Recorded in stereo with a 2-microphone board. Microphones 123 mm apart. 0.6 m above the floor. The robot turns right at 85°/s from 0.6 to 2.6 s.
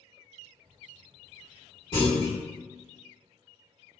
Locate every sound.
1.9 s a clunk: 70° left, 1.5 m; by 2.3 s 105° left, 1.5 m